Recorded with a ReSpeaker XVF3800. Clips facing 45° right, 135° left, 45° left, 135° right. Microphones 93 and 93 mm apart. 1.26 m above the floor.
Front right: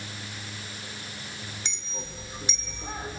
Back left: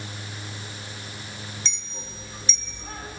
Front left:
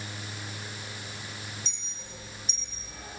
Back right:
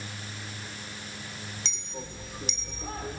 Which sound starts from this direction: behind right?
A clink, at 1.6 s.